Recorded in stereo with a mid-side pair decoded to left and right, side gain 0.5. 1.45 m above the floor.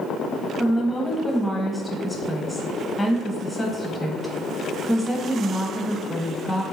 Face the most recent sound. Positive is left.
turn(degrees=5)